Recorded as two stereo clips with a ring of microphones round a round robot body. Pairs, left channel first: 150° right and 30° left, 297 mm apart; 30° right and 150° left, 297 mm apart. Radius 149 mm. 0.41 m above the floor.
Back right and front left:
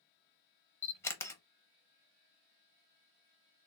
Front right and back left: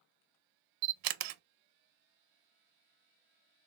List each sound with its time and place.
0.8 s a camera shutter: 130° left, 0.5 m